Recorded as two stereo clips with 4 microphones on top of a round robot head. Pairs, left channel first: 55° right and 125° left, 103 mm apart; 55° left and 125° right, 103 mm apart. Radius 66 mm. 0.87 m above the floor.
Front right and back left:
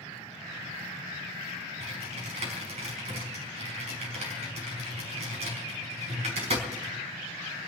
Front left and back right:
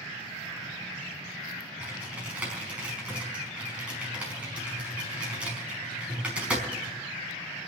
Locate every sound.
1.8 s typing on a keyboard: 155° left, 5 m